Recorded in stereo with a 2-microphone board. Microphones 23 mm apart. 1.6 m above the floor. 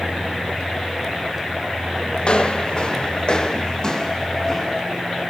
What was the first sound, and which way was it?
Footsteps, 50° left (ahead or behind).